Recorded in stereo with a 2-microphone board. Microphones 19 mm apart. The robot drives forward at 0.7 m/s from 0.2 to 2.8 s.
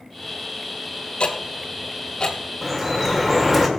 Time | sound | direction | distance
1.2 | ticking | 60° left (ahead or behind) | 1.3 m
2.6 | dripping | 10° right (ahead or behind) | 1.6 m